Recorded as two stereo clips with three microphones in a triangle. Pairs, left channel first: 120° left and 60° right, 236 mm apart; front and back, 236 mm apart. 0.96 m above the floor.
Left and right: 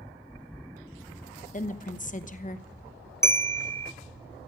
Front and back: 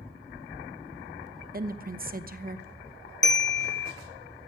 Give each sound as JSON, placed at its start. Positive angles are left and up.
{"t": 1.5, "sound": "a woman speaking", "azimuth_deg": 155, "distance_m": 0.9}
{"t": 3.2, "sound": "a bell", "azimuth_deg": 45, "distance_m": 0.7}